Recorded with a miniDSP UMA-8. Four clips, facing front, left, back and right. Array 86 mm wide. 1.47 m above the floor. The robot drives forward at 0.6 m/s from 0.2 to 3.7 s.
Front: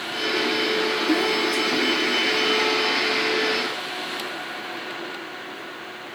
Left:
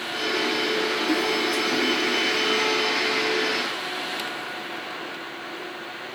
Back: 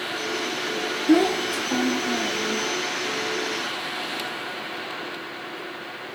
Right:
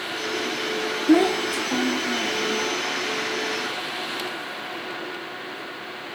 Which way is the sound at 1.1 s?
120° right.